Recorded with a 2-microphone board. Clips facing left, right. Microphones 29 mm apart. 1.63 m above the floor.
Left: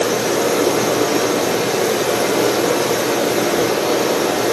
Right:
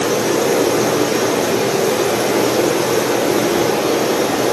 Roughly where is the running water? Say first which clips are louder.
Right 1 dB; centre.